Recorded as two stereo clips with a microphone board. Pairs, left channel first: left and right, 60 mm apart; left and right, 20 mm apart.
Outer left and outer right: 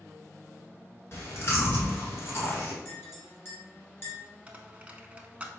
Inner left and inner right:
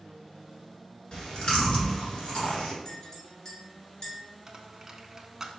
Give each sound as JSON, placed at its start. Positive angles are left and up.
{"t": 1.1, "sound": "chewing", "side_deg": 45, "distance_m": 1.2}
{"t": 2.9, "sound": "a clink", "side_deg": 40, "distance_m": 2.0}
{"t": 4.5, "sound": "a dropped coin", "side_deg": -20, "distance_m": 0.5}